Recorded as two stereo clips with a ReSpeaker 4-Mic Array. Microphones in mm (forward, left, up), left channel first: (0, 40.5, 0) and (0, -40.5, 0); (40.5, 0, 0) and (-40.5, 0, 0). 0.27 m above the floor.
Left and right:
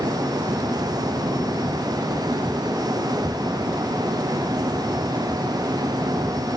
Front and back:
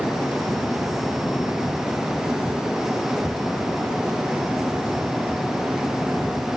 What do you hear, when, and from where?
Only background noise.